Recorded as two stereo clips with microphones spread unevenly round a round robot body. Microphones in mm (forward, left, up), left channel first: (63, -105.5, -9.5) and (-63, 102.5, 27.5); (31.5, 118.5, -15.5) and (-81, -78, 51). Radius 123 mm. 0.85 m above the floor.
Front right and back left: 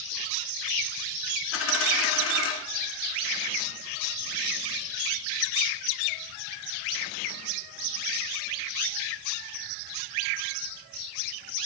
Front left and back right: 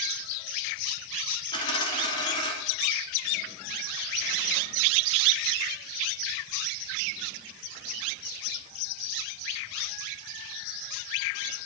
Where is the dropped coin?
20° right, 1.9 m.